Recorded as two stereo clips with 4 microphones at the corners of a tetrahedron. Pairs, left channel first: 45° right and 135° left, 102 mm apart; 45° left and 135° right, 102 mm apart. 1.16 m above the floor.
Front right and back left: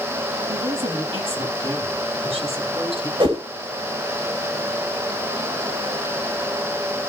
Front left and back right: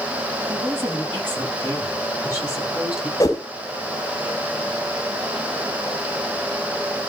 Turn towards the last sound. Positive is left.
turn(degrees=105)